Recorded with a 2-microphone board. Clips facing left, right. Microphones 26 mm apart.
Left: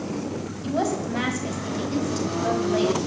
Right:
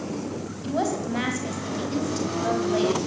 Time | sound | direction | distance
0.6 | a woman speaking | 5° left (ahead or behind) | 4 m